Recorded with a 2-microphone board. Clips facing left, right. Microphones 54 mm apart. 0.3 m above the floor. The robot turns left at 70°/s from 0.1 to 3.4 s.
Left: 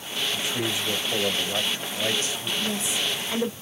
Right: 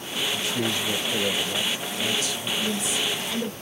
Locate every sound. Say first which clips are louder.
0.3 s a man speaking: right 1 dB; 170° right, 1.1 m; by 2.5 s 35° left, 1.1 m
2.6 s a woman speaking: right 1 dB; 20° left (ahead or behind), 0.9 m; by 3.5 s 25° left (ahead or behind), 0.9 m